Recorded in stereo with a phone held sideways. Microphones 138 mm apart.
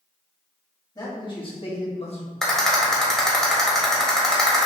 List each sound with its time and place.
0.9 s a man speaking: 30° left (ahead or behind), 1.7 m; by 2.3 s 45° left (ahead or behind), 1.4 m
2.4 s a rattle: 5° left (ahead or behind), 1.2 m